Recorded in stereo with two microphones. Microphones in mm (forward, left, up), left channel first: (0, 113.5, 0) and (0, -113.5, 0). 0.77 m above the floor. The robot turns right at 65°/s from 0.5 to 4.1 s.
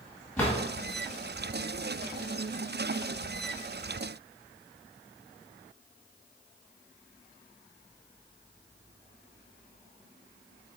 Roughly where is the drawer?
Centre.